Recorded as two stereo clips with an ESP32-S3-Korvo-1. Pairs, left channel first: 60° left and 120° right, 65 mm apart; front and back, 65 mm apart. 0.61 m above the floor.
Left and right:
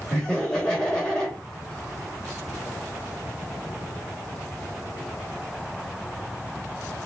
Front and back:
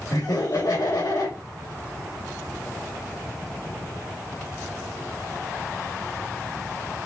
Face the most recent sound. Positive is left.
turn(degrees=-15)